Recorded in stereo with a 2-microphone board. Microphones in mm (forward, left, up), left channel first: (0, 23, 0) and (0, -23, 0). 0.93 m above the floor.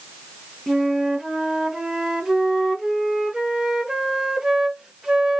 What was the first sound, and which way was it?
A flute, 15° right (ahead or behind).